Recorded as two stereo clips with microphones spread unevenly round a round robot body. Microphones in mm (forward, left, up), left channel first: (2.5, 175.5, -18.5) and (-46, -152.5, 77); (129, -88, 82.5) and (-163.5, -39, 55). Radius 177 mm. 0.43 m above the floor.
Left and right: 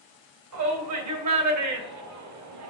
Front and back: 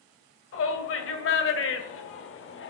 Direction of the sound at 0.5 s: 55° right.